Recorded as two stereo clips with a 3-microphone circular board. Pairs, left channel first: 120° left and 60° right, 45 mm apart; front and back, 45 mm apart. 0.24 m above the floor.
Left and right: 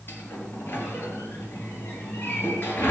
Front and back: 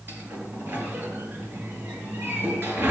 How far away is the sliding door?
About 3 m.